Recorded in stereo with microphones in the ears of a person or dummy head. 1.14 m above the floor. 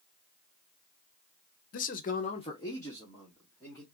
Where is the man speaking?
50° left (ahead or behind), 0.8 m; by 3.8 s 10° left (ahead or behind), 3 m.